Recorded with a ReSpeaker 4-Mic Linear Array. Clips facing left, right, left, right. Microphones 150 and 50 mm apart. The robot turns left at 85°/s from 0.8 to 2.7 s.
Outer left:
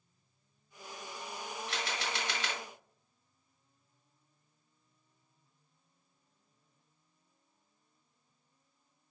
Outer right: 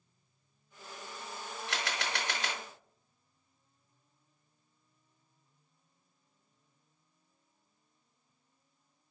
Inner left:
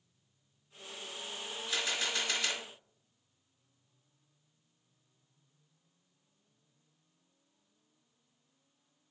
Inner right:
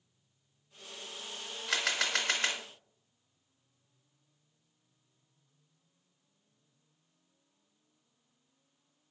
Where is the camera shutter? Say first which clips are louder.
Outer right 2 dB, inner right 4 dB; 75° right, 1.1 m; by 2.6 s 155° right, 1.1 m.